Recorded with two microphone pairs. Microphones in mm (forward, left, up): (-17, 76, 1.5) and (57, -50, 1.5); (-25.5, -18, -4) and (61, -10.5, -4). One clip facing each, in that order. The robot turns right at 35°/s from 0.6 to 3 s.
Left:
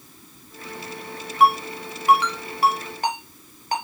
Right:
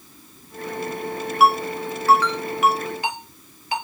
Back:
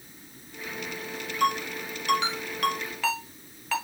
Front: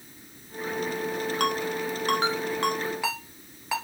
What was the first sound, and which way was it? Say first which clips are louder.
A ringtone: right 1 dB, back 3 dB; 25° left.